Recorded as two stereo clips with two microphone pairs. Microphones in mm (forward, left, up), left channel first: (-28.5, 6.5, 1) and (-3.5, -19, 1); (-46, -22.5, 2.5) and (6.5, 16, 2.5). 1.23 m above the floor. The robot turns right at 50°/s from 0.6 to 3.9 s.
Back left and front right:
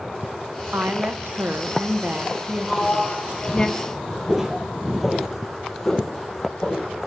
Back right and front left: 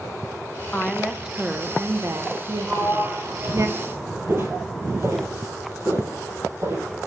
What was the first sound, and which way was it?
A woman speaking, 70° right.